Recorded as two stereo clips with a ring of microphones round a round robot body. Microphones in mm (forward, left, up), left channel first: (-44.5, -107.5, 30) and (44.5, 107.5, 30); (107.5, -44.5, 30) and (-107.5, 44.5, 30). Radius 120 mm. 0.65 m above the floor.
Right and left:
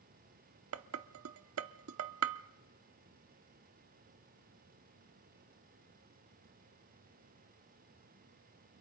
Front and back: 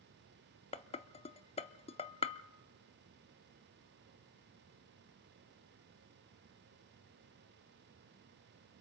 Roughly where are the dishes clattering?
Ahead left.